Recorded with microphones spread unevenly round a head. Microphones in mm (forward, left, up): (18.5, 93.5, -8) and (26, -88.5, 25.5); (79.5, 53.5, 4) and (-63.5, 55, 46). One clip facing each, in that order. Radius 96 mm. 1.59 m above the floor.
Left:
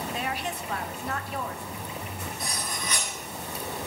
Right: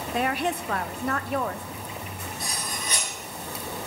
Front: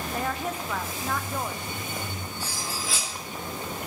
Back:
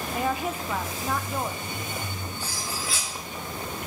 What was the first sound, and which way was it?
A woman speaking, 110° right.